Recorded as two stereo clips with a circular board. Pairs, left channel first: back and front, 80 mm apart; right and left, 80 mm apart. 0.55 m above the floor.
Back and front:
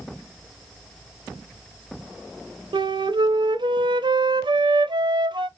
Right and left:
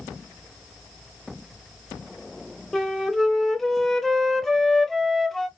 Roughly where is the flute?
Ahead.